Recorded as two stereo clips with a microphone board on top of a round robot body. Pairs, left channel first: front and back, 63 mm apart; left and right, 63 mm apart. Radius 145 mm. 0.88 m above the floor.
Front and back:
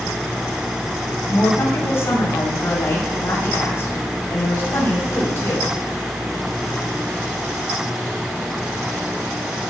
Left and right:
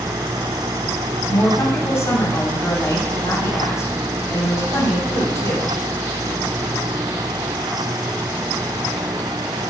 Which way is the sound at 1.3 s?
50° left.